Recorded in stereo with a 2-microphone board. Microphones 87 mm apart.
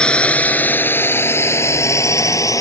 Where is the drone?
10° left (ahead or behind); by 2.6 s 40° left (ahead or behind).